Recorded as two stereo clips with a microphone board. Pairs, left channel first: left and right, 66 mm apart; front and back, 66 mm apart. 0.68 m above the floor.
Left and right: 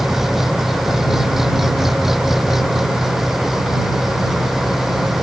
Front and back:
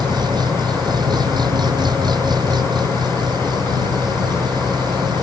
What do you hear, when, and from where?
0.0 s an engine running: 175° right